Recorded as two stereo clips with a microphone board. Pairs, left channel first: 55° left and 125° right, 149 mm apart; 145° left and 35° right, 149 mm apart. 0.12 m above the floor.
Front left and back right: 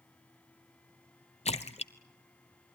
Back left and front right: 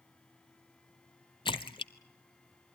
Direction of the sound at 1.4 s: 95° left.